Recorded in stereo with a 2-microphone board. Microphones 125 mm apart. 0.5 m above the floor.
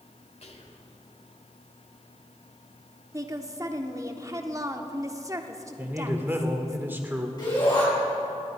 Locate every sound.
0.4 s whispering: 60° left (ahead or behind), 1.9 m
3.1 s a woman speaking: 25° right (ahead or behind), 0.8 m
5.8 s a man speaking: 15° right (ahead or behind), 1.2 m
7.4 s a shout: 40° left (ahead or behind), 4 m